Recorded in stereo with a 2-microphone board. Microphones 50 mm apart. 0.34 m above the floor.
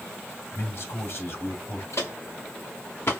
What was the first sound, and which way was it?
A man speaking, 50° left (ahead or behind).